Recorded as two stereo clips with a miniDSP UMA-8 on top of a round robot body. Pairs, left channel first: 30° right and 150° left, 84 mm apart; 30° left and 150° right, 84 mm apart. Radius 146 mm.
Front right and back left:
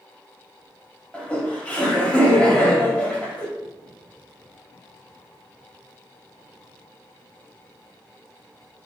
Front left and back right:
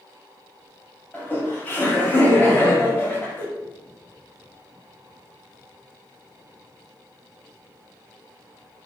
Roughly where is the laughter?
Ahead.